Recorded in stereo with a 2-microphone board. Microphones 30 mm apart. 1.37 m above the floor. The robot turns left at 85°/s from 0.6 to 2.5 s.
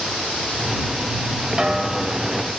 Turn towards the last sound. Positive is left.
turn(degrees=130)